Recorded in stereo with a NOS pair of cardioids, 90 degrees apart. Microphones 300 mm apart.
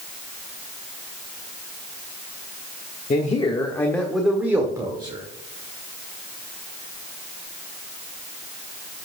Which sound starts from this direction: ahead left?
A man speaking, at 3.1 s.